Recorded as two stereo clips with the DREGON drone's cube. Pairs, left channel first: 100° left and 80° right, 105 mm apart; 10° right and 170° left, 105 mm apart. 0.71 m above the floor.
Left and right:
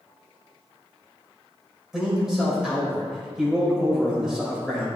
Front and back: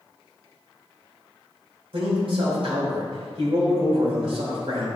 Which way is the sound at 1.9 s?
165° right.